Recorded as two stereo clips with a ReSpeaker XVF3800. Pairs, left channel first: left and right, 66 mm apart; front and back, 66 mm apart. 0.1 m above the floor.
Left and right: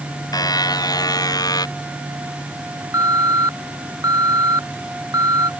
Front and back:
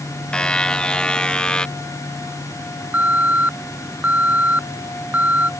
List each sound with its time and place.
0.3 s a buzzer: 75° left
2.9 s an alarm: 115° right